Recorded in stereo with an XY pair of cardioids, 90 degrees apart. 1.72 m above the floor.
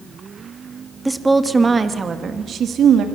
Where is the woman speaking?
10° right, 2.5 m; by 3.0 s 80° right, 2.5 m.